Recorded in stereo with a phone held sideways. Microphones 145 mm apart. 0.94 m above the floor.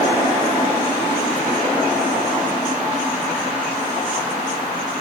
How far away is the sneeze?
No sneeze in this recording.